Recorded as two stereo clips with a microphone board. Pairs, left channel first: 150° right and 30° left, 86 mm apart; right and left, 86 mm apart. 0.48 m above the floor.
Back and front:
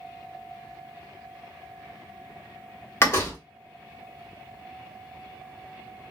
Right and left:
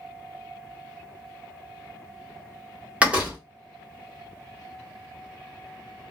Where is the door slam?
160° left, 1.4 m.